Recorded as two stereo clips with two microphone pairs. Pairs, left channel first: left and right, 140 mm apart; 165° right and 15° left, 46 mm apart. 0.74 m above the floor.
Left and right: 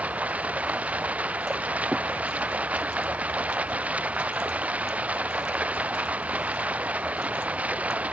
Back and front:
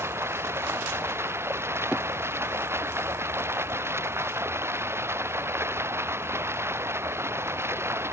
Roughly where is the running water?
Ahead.